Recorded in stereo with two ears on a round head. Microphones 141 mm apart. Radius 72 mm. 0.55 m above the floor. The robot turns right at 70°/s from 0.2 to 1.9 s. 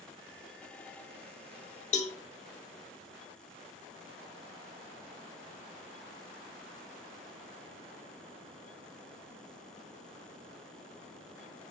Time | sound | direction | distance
1.9 | a cowbell | 40° left (ahead or behind) | 1.1 m